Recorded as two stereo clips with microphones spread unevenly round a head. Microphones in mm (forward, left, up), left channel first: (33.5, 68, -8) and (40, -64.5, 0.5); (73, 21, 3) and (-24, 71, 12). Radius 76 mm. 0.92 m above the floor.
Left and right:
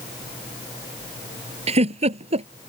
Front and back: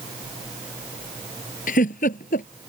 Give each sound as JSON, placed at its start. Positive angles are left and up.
{"t": 1.7, "sound": "a giggle", "azimuth_deg": -45}